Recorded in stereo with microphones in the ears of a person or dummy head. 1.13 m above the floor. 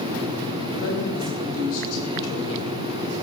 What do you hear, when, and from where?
0.8 s a woman speaking: 85° left, 5.5 m; by 2.9 s 65° left (ahead or behind), 3.5 m